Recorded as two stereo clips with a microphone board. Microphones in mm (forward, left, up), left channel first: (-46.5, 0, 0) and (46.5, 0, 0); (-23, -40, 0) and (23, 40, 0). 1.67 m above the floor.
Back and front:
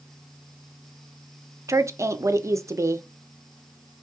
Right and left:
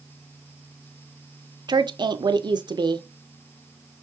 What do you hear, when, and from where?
1.7 s a woman speaking: 50° left, 0.6 m